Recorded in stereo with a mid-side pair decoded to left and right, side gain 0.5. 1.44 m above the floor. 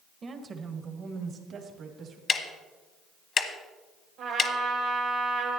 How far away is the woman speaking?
About 1.5 m.